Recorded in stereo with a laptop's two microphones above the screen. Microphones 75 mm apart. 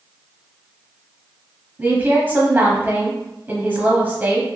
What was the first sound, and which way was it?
A woman speaking, 25° right (ahead or behind).